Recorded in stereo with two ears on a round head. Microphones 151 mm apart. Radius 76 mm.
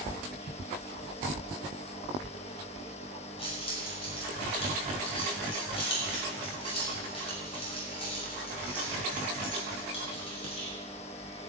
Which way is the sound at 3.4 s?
35° left (ahead or behind).